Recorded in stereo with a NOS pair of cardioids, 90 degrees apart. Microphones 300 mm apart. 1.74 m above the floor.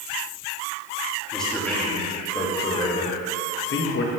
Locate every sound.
1.3 s a man speaking: straight ahead, 3 m; by 4.1 s 50° left, 1.8 m